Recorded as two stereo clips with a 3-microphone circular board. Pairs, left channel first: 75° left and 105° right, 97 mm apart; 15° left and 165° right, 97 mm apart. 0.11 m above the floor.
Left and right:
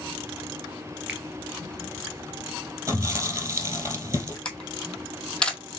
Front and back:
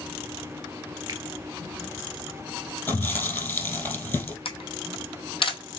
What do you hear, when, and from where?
1.1 s a finger snap: 175° left, 1.8 m
2.9 s chewing: 45° right, 2.5 m
4.5 s a camera shutter: 5° right, 0.9 m